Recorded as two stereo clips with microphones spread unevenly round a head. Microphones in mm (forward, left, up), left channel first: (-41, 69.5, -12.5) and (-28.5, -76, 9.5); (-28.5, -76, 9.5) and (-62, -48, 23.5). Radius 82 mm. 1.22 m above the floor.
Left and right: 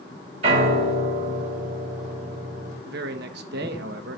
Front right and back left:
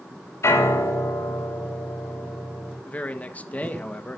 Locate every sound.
0.4 s a piano: 25° right, 7.5 m
2.9 s a man speaking: 90° right, 1.7 m